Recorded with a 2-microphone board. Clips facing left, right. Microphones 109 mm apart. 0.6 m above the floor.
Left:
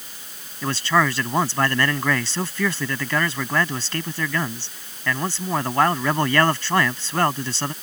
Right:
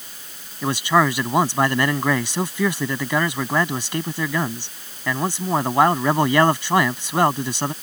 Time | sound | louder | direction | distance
0.6 | a man speaking | right 2 dB | 15° right (ahead or behind) | ?